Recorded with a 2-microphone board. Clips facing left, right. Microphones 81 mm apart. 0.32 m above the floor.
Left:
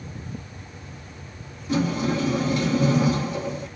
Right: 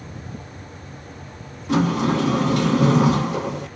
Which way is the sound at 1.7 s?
65° right (ahead or behind).